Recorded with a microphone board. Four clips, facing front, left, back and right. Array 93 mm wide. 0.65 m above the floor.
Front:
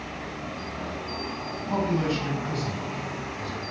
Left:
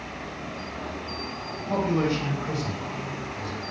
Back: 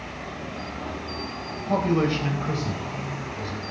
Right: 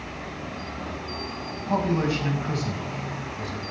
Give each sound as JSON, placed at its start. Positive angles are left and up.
{"t": 1.7, "sound": "a man speaking", "azimuth_deg": 160, "distance_m": 4.0}